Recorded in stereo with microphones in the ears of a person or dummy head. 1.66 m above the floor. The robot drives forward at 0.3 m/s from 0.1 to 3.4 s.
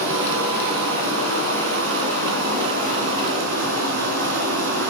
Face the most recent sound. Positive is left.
turn(degrees=-60)  # may be behind; listen again after turning